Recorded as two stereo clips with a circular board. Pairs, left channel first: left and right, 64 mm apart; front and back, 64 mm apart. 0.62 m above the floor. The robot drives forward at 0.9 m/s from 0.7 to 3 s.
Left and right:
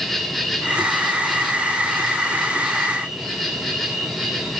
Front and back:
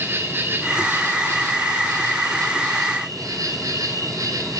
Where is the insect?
Straight behind, 2 m.